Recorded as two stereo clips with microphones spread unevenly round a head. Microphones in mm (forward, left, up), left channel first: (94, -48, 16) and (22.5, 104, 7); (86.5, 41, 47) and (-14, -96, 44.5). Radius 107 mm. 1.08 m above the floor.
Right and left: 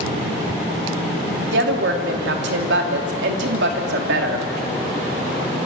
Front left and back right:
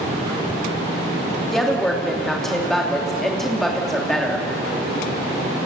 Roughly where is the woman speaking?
Behind left.